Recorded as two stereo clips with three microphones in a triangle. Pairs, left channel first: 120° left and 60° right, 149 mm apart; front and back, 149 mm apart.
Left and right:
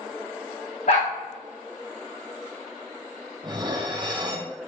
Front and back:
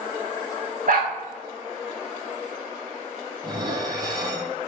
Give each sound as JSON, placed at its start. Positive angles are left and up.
{"t": 0.9, "sound": "a dog barking", "azimuth_deg": 155, "distance_m": 3.5}
{"t": 3.4, "sound": "dishes clattering", "azimuth_deg": -120, "distance_m": 2.0}